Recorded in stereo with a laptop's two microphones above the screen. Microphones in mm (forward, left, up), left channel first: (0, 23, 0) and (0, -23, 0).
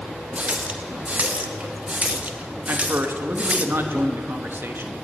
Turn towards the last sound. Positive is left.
turn(degrees=-55)  # may be behind; listen again after turning